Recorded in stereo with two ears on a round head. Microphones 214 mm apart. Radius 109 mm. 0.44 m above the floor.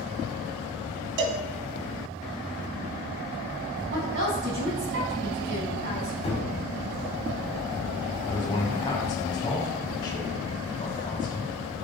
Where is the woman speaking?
50° right (ahead or behind), 3 m.